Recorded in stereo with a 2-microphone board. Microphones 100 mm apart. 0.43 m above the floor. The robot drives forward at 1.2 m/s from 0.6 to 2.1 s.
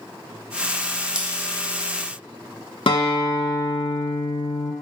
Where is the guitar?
65° left (ahead or behind), 0.8 m.